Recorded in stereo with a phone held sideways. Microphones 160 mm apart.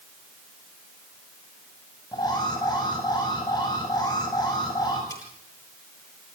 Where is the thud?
I don't hear a thud.